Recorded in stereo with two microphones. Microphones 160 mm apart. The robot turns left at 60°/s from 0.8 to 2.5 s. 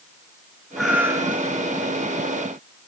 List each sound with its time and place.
0.8 s a cat meowing: straight ahead, 2.5 m; by 1.7 s 50° right, 2.5 m